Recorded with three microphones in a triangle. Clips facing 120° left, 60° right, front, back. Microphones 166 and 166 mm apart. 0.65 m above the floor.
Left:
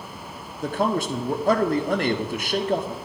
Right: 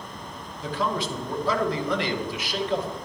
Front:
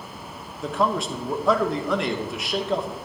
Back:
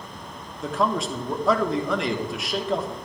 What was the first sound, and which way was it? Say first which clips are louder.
A man speaking: left 4 dB, even; 90° left.